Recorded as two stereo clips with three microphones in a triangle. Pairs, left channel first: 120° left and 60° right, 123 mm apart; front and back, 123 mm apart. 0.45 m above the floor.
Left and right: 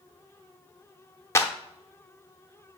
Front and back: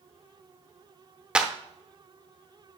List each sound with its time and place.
1.4 s a clap: 105° left, 0.8 m